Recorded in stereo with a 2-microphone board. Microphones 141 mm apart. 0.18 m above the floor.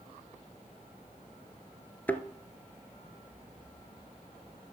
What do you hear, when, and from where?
2.1 s a thud: 15° left (ahead or behind), 0.8 m